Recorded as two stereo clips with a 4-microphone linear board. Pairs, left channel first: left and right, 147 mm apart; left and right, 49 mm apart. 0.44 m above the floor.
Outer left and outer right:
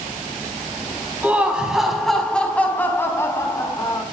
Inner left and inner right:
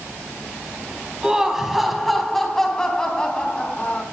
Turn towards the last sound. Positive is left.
turn(degrees=30)  # may be behind; listen again after turning